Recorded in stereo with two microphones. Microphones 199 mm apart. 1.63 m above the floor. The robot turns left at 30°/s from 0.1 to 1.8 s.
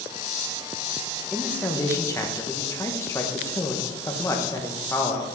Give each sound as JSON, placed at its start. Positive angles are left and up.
{"t": 1.3, "sound": "a man speaking", "side_deg": 0, "distance_m": 1.2}